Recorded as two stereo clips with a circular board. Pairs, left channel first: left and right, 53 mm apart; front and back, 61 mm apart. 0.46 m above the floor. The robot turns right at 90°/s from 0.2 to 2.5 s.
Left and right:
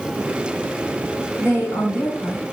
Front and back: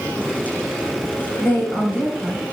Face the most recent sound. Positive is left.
turn(degrees=145)